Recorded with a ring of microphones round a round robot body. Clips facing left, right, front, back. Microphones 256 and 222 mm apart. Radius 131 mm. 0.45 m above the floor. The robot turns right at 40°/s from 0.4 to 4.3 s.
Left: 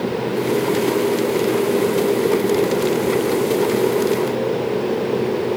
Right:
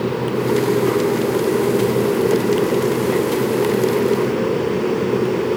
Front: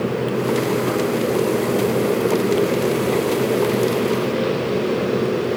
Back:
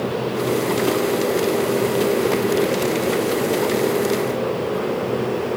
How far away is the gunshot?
I don't hear a gunshot.